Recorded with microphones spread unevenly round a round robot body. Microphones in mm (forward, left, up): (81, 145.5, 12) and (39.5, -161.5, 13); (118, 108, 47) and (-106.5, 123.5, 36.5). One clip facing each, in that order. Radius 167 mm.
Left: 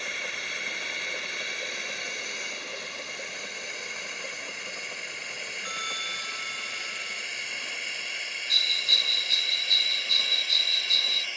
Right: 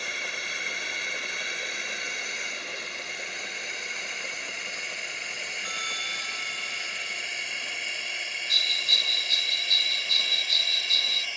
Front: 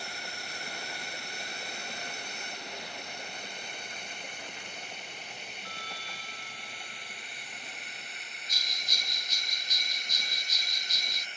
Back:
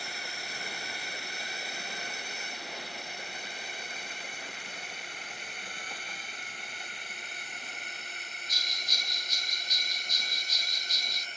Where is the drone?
145° right; by 11.4 s 120° right.